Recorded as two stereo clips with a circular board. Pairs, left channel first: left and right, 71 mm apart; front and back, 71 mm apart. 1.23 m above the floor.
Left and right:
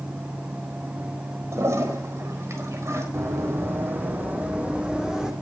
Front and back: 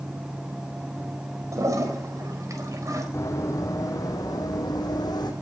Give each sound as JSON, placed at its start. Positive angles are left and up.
{"t": 1.5, "sound": "a toilet flushing", "azimuth_deg": -140, "distance_m": 4.0}
{"t": 3.1, "sound": "running footsteps", "azimuth_deg": -45, "distance_m": 3.0}